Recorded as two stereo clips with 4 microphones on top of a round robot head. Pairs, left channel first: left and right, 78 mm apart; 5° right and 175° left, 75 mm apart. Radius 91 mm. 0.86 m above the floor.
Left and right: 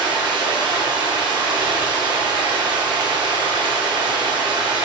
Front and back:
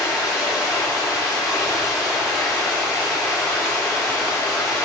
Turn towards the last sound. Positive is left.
turn(degrees=-105)